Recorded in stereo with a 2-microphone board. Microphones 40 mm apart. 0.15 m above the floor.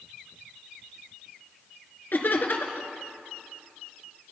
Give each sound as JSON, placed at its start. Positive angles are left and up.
{"t": 2.1, "sound": "laughter", "side_deg": 55, "distance_m": 2.5}